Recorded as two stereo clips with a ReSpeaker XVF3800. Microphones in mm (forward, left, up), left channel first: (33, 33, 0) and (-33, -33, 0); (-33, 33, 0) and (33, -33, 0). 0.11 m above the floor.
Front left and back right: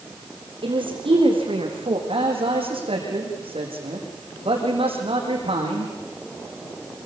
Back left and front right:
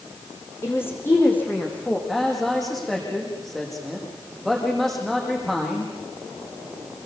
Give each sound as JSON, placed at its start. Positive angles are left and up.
{"t": 0.6, "sound": "a woman speaking", "azimuth_deg": -160, "distance_m": 5.5}
{"t": 2.1, "sound": "a man speaking", "azimuth_deg": -135, "distance_m": 6.0}